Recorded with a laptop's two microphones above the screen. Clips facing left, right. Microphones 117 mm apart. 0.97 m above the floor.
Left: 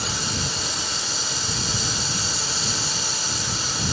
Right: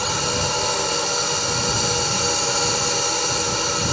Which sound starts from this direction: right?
A drone, at 0.0 s.